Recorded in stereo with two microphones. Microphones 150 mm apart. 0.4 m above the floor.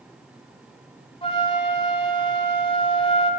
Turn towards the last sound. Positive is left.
turn(degrees=40)  # may be behind; listen again after turning